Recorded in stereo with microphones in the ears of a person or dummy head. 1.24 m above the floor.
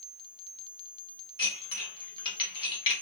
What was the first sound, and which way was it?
Dishes clattering, 30° left (ahead or behind).